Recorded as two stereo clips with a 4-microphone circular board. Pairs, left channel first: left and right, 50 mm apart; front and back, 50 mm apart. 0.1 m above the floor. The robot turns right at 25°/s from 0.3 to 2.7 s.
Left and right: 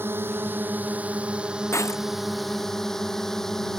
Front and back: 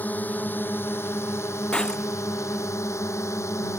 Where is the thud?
I don't hear a thud.